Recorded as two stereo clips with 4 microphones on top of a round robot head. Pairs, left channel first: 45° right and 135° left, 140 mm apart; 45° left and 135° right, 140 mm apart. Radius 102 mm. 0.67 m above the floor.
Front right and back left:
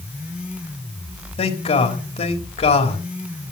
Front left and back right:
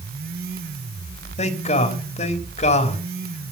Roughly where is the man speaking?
Ahead.